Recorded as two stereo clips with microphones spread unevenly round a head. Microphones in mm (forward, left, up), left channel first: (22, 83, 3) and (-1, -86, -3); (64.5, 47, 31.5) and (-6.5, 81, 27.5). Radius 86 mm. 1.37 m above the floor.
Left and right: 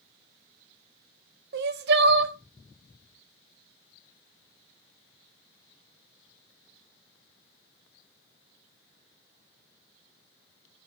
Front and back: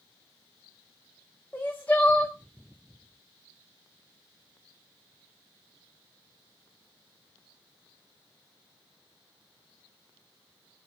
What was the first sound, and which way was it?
Crying, 100° right.